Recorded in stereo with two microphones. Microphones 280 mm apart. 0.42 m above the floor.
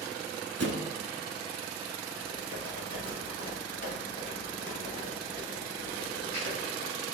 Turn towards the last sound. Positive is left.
turn(degrees=35)  # may be behind; listen again after turning